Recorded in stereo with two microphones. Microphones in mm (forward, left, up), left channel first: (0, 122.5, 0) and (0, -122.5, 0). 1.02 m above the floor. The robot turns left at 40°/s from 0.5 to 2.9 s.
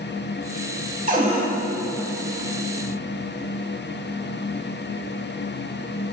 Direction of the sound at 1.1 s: 30° right (ahead or behind).